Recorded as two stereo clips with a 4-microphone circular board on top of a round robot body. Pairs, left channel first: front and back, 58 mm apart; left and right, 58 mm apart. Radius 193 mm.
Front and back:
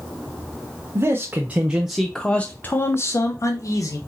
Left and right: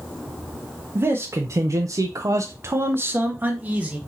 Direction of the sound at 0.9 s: 135° right.